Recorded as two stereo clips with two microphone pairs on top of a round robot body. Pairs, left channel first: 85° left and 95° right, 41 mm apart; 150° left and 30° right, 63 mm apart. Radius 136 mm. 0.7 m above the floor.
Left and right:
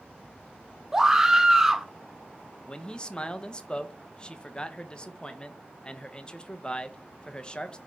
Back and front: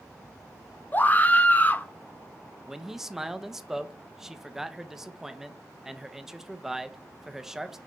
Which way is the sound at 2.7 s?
40° left.